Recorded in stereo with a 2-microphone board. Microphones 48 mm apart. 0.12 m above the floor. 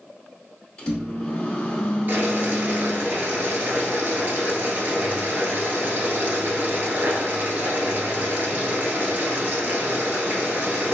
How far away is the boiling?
About 0.8 m.